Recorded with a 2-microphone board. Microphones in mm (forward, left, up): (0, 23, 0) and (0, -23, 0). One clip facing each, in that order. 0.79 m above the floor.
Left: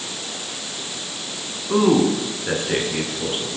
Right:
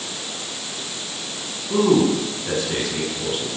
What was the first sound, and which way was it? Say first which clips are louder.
A man speaking: even; 30° left (ahead or behind).